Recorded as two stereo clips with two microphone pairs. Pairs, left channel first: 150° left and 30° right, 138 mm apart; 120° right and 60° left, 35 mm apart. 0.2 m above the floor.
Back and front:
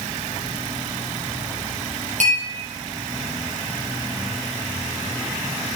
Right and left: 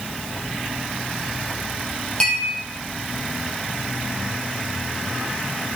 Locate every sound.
2.2 s a clink: 55° right, 4 m